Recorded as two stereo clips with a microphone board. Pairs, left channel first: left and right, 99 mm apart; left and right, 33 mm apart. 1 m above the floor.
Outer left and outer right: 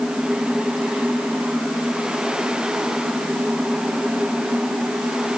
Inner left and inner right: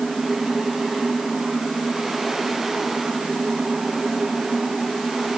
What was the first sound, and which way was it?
Only background noise.